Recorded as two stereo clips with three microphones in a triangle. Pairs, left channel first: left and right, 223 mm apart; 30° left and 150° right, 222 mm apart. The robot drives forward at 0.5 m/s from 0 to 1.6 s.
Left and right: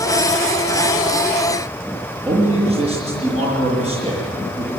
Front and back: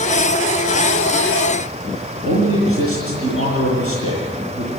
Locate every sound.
2.2 s a man speaking: 155° right, 7 m